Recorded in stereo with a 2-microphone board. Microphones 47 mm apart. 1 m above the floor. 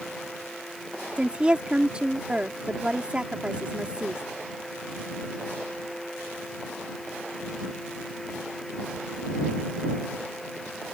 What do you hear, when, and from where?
1.2 s a woman speaking: 20° right (ahead or behind)